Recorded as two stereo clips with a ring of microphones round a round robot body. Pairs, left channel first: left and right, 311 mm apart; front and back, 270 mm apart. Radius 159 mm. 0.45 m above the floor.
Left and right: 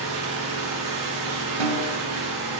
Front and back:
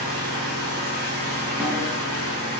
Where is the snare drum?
95° right, 2.5 m.